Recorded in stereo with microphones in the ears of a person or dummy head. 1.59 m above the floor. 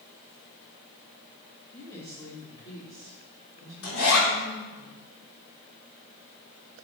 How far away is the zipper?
About 4 m.